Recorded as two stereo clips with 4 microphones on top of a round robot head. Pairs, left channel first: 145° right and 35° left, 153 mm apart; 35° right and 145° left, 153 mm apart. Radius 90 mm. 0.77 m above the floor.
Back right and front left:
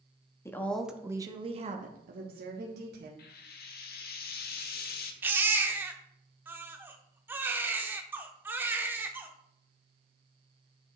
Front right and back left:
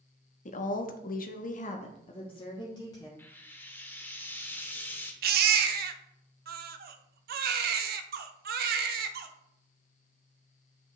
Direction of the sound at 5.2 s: 115° left.